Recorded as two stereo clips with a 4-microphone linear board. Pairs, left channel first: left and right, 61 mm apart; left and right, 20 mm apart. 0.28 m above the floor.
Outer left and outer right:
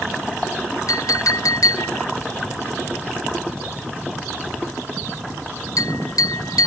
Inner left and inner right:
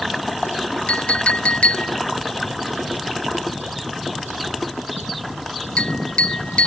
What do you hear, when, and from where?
0.9 s a clink: 70° left (ahead or behind)